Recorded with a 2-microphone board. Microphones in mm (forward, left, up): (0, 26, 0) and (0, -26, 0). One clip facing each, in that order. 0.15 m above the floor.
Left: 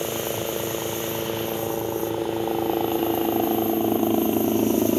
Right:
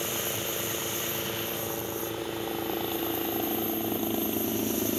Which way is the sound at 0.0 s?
25° left (ahead or behind).